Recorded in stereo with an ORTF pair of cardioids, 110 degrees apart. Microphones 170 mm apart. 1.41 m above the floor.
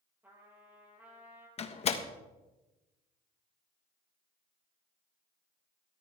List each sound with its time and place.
0.2 s a trumpet: 10° right, 6.5 m
1.6 s a door slam: 40° left, 1.5 m